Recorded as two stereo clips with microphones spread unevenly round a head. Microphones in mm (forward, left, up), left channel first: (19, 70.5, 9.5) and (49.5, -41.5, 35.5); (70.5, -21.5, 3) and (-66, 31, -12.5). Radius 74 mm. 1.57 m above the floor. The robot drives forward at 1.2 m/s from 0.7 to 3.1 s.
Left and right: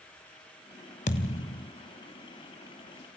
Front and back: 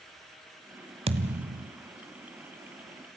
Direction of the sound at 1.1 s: 125° left.